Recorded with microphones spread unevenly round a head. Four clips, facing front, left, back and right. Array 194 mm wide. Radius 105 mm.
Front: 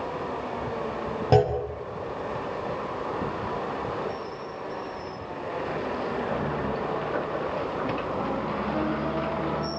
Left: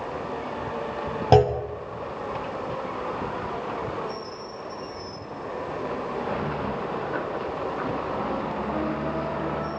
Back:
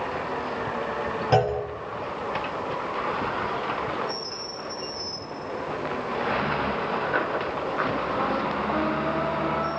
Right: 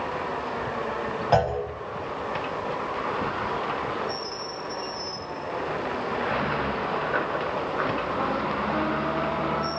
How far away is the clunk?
About 2.5 m.